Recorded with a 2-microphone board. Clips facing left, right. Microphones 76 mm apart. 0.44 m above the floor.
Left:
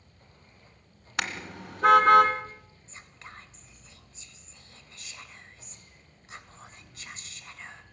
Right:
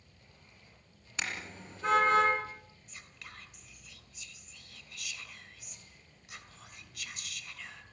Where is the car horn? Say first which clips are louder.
Left 6 dB; 65° left (ahead or behind), 2 m.